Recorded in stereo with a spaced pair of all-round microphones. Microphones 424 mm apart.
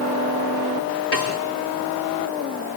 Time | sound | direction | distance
1.1 | a snare drum | 60° left (ahead or behind) | 4 m